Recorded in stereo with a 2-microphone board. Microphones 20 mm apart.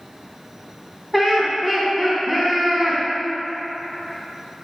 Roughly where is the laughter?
Centre.